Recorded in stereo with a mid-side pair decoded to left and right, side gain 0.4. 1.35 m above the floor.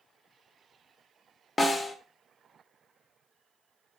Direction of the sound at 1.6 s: 35° left.